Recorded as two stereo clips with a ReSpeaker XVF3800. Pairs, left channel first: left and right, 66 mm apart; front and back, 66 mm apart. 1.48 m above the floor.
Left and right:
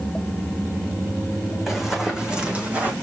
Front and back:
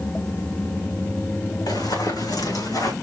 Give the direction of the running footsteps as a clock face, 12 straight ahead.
12 o'clock.